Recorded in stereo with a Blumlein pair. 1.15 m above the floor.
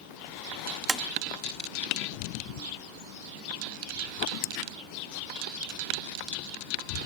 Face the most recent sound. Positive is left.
turn(degrees=-10)